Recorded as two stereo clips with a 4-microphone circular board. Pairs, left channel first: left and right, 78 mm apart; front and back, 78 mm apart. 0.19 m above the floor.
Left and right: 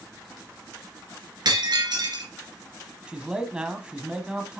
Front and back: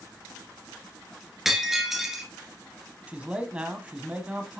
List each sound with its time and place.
1.4 s breaking glass: 95° right, 1.8 m
3.1 s a man speaking: 145° right, 1.0 m